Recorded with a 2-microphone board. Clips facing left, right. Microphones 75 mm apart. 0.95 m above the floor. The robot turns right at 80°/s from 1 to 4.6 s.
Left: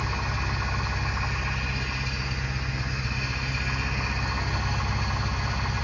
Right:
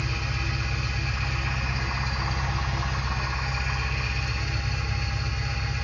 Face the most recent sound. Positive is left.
turn(degrees=65)